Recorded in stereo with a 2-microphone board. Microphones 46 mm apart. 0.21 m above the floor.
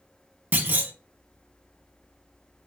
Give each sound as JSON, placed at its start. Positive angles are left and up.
{"t": 0.5, "sound": "a clunk", "side_deg": -45, "distance_m": 0.5}